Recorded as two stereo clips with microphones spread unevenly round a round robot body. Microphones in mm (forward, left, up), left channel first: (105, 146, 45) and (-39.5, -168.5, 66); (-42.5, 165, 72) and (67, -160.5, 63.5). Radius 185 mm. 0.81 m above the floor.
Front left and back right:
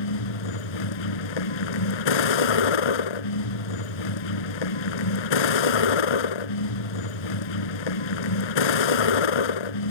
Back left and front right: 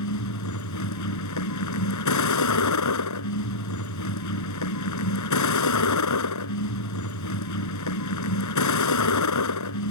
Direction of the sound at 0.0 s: 65° left.